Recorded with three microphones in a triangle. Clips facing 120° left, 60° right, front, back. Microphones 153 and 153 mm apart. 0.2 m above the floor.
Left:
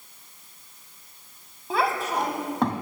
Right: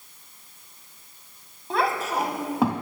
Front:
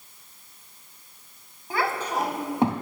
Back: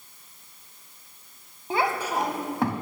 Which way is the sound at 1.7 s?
155° right.